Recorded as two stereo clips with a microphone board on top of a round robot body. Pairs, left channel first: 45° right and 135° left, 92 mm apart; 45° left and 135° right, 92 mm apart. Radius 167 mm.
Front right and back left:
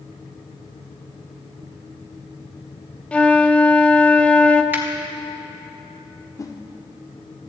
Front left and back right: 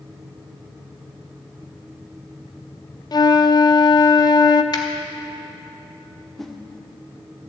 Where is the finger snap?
70° left, 1.2 m.